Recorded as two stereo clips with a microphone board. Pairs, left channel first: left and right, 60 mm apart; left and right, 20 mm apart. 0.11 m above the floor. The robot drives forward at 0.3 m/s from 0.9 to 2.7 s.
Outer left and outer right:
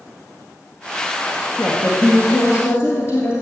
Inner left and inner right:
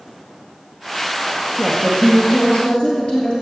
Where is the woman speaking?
50° left (ahead or behind), 2.5 m; by 3.3 s 45° left (ahead or behind), 2.5 m.